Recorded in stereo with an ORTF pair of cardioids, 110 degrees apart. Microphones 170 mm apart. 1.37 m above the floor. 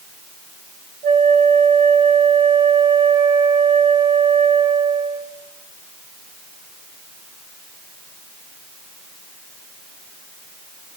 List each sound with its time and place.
1.0 s a flute: 65° right, 8.5 m